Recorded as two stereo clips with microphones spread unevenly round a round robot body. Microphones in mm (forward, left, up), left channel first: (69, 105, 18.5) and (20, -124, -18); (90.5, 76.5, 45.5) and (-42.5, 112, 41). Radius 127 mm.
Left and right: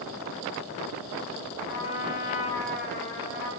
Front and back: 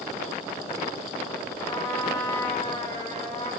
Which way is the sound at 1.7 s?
50° left.